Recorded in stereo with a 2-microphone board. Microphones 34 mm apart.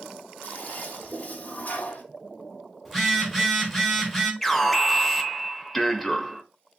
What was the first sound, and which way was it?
A toilet flushing, 50° left (ahead or behind).